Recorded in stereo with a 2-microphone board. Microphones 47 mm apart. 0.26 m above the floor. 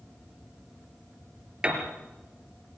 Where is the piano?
20° right (ahead or behind), 3.5 m.